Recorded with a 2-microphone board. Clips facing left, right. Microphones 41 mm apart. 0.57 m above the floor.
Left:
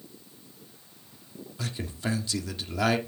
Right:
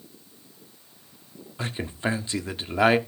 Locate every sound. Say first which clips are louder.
1.6 s a man speaking: right 5 dB; 30° right (ahead or behind), 1.3 m